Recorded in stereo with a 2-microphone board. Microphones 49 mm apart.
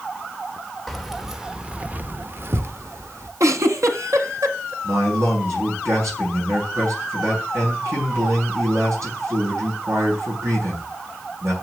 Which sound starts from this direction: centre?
Keys jangling, at 0.9 s.